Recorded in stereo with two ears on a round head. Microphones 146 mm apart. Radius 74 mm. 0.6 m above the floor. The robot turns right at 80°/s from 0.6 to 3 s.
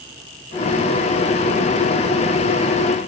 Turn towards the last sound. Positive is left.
No sound to turn to.